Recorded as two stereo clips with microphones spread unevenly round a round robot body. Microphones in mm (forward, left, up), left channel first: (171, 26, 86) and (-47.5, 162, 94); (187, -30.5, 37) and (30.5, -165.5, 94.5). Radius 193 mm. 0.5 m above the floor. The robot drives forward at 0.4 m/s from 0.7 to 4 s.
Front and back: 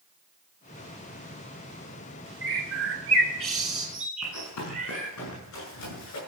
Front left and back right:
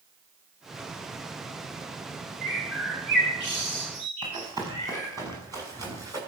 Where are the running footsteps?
70° right, 6 m; by 6.2 s 65° right, 9 m.